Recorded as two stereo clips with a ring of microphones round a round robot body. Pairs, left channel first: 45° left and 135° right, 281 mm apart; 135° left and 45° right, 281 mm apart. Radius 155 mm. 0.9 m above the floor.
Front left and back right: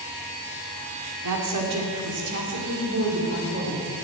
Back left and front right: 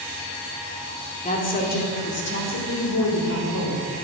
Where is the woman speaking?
160° right, 2.5 m; by 3.9 s 165° left, 3 m.